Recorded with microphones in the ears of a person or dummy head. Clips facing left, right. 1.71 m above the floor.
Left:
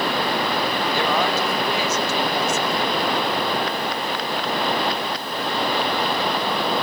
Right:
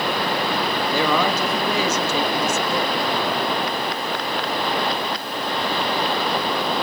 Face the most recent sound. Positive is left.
turn(degrees=-80)